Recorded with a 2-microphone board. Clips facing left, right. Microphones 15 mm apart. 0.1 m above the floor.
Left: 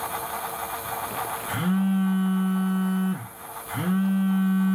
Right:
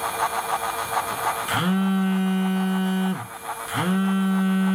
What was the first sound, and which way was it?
A phone buzzing, 65° right (ahead or behind).